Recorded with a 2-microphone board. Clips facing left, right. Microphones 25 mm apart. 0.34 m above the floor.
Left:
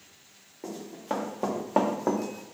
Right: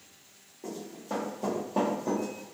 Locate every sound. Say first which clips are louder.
0.6 s running footsteps: left 4 dB; 40° left (ahead or behind), 1.6 m; by 2.5 s 65° left (ahead or behind), 0.7 m